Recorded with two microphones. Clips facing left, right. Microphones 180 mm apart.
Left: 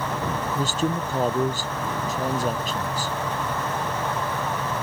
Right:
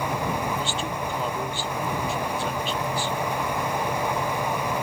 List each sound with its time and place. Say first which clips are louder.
0.6 s a man speaking: left 4 dB; 40° left (ahead or behind)